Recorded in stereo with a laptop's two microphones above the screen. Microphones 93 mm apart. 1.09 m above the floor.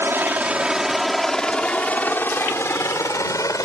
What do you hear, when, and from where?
0.0 s a helicopter: 25° right (ahead or behind); by 3.7 s 35° left (ahead or behind)